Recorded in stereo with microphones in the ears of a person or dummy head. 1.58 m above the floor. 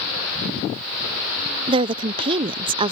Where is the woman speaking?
30° right (ahead or behind).